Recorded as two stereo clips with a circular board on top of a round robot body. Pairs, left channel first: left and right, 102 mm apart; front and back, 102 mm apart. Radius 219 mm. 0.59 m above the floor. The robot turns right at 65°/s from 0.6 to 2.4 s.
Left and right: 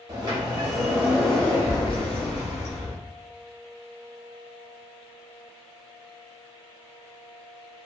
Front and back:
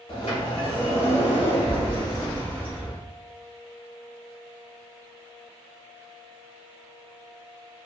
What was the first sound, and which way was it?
A sliding door, 40° right.